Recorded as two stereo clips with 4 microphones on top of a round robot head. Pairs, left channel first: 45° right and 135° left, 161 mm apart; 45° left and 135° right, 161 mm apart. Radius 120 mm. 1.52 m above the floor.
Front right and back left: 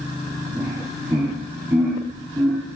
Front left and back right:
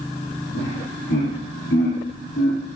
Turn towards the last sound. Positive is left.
turn(degrees=55)